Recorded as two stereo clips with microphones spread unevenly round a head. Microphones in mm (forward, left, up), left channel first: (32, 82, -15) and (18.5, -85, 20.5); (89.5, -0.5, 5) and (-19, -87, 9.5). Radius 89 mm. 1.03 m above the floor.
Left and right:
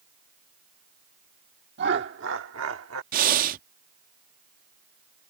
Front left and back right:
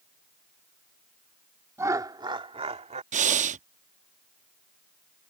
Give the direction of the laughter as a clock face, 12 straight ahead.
2 o'clock.